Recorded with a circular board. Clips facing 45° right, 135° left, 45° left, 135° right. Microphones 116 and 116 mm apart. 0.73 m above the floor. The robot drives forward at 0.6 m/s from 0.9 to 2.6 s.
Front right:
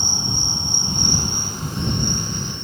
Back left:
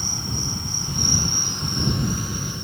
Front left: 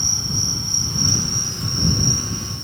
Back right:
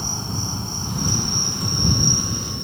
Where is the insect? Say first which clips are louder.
Front right 2 dB, back right 1 dB; 95° right; by 2.6 s 145° right.